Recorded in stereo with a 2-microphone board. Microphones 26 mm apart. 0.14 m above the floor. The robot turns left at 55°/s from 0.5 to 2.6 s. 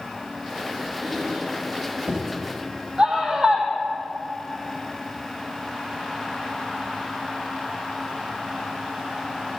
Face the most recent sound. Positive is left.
turn(degrees=-30)  # may be behind; listen again after turning